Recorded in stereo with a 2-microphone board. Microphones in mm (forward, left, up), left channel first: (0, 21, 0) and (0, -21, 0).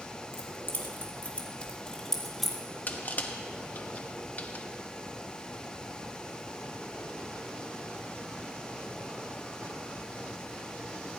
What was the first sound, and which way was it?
Keys jangling, 60° left (ahead or behind).